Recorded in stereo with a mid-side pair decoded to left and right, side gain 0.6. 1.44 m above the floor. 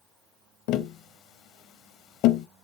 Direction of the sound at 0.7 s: 65° left.